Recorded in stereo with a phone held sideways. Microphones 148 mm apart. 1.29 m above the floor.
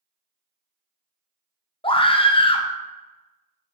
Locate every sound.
1.8 s a scream: 35° left (ahead or behind), 0.5 m